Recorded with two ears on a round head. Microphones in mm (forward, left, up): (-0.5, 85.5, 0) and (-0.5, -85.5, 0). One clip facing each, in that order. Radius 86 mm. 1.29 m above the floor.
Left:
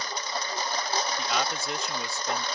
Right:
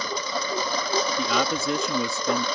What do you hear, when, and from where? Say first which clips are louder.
0.0 s a lawn mower: right 5 dB; 70° right (ahead or behind)
1.2 s a man speaking: right 5 dB; 70° right (ahead or behind)